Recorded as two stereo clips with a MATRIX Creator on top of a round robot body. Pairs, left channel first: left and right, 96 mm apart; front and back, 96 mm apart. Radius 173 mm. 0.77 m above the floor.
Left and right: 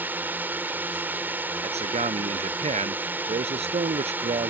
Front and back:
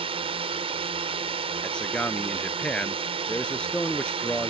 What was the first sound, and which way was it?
A drone, 160° right.